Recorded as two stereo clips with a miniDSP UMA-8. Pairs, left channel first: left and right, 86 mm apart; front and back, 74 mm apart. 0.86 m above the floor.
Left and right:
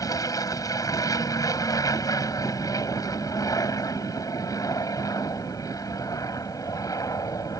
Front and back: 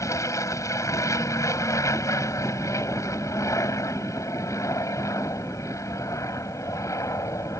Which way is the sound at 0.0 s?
45° left.